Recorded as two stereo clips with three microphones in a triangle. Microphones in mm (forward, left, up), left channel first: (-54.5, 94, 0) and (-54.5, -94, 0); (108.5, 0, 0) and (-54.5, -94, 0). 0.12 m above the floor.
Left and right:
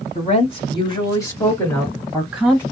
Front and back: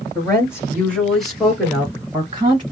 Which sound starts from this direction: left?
A woman speaking, at 0.1 s.